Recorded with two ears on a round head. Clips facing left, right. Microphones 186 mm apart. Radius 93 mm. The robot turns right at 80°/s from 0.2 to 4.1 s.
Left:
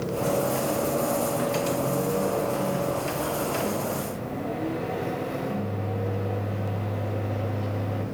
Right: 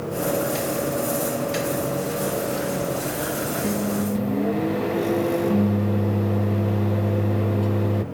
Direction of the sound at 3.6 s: 140° right.